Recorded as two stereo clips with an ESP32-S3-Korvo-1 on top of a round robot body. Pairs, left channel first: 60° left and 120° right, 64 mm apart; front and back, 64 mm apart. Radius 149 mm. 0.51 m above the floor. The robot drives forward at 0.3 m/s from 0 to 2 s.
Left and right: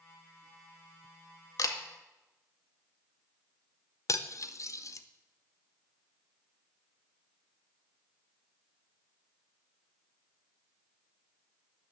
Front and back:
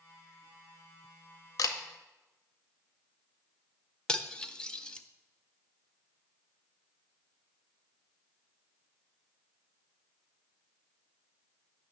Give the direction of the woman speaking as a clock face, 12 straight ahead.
No woman speaking in this recording.